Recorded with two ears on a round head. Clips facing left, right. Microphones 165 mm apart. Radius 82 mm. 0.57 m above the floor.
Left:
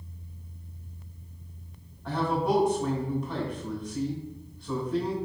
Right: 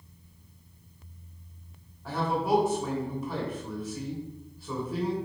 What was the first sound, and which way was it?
A man speaking, 5° right (ahead or behind).